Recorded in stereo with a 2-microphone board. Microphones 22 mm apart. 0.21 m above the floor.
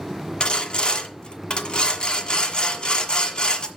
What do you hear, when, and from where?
0.4 s sawing: 40° left (ahead or behind), 1.3 m